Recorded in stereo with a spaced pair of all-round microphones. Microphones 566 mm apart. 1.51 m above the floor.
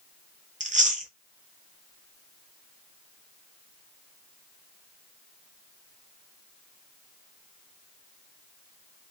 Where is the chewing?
15° right (ahead or behind), 0.8 m.